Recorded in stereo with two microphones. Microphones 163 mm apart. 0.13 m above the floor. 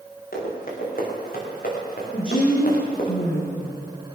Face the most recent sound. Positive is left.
turn(degrees=60)  # may be behind; listen again after turning